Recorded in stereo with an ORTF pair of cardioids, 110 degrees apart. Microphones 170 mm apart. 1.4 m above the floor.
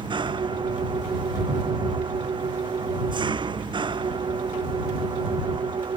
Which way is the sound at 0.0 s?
30° right.